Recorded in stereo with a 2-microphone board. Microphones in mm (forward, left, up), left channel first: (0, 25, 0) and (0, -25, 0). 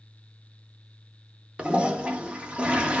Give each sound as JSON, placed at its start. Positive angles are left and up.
{"t": 1.6, "sound": "a toilet flushing", "side_deg": -20, "distance_m": 0.5}